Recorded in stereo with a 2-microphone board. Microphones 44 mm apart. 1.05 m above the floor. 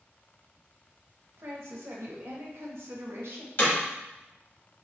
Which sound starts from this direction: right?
A woman speaking, at 1.4 s.